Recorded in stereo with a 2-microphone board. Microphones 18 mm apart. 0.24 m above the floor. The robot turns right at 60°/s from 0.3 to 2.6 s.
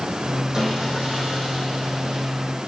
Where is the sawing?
140° right, 3 m; by 2.3 s 35° right, 3 m.